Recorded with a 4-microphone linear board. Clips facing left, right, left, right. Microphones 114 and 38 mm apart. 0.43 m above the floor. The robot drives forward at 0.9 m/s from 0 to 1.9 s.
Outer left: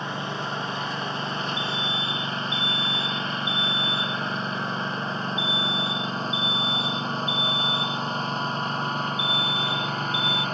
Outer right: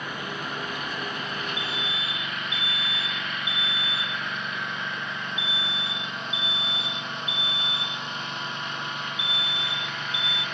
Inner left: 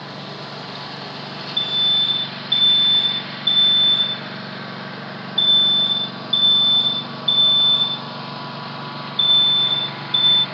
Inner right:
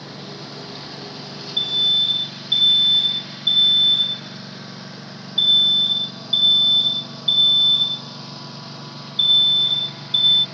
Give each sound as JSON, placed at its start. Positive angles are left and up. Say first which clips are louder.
{"t": 0.0, "sound": "a lawn mower", "louder": "outer left 3 dB, inner left 3 dB", "side_deg": 30}
{"t": 1.6, "sound": "an alarm", "louder": "outer left 3 dB, even", "side_deg": 0}